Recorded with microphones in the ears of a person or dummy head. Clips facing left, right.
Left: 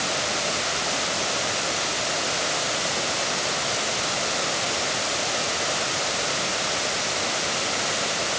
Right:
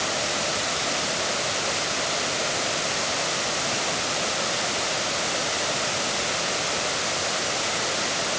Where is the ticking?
No ticking in this recording.